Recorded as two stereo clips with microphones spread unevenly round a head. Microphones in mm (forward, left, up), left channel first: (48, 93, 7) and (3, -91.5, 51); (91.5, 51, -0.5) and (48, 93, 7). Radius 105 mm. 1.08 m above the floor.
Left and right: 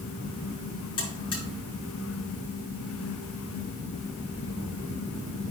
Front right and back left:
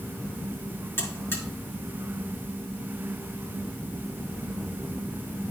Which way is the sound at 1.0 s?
5° left.